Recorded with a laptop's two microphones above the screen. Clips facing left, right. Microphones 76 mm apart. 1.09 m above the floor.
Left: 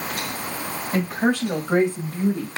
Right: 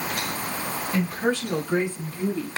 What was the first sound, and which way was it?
A woman speaking, 55° left (ahead or behind).